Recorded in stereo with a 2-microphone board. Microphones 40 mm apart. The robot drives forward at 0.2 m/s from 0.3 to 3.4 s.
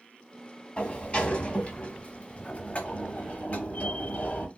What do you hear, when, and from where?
0.8 s a sliding door: 30° left (ahead or behind), 0.9 m; by 4.5 s 45° left (ahead or behind), 0.7 m